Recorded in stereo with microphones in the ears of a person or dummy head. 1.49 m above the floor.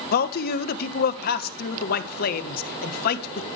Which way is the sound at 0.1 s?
60° left (ahead or behind).